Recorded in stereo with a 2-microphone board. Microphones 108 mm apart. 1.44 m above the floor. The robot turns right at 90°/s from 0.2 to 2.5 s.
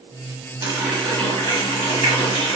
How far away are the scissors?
No scissors in this recording.